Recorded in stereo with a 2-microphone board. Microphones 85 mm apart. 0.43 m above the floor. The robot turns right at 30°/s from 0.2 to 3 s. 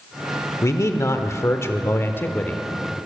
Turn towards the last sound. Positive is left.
turn(degrees=160)